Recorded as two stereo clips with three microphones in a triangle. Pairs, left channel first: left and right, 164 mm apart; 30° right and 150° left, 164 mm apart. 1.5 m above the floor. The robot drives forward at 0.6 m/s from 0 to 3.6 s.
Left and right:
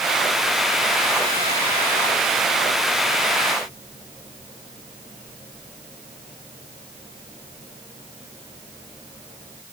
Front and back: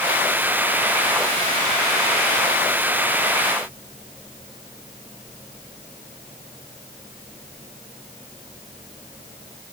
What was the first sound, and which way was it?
Only background noise.